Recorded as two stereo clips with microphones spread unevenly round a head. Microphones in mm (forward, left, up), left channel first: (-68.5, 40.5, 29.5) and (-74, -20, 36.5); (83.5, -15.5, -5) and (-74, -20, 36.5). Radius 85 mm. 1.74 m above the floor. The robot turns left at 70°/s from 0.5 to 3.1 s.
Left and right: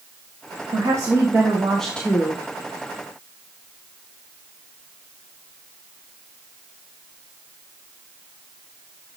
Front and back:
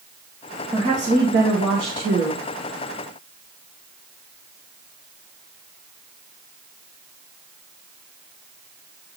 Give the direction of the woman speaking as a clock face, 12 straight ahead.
4 o'clock.